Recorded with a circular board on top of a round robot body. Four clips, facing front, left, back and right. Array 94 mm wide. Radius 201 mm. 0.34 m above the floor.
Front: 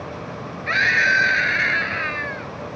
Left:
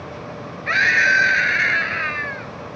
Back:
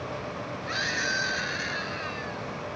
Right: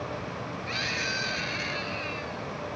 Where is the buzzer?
I don't hear a buzzer.